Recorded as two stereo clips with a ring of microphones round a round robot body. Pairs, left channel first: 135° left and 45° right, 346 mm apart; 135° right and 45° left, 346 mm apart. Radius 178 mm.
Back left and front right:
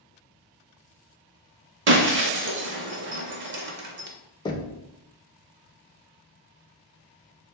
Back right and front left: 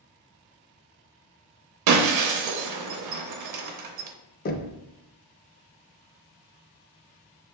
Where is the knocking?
160° right, 0.5 m.